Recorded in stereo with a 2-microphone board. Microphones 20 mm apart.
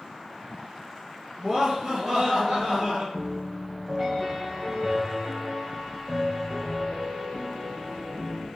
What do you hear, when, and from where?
1.4 s laughter: 55° right (ahead or behind), 3 m; by 3.0 s 65° right (ahead or behind), 3.5 m
3.1 s a piano: 50° right (ahead or behind), 3.5 m